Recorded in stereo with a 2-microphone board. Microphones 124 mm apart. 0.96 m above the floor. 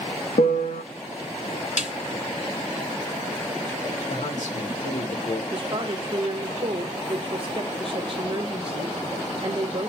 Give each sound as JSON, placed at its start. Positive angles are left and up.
{"t": 0.4, "sound": "a piano", "side_deg": 85, "distance_m": 0.6}
{"t": 1.8, "sound": "a snare drum", "side_deg": 75, "distance_m": 2.5}
{"t": 4.1, "sound": "a man speaking", "side_deg": 75, "distance_m": 2.0}
{"t": 5.5, "sound": "a woman speaking", "side_deg": -45, "distance_m": 1.0}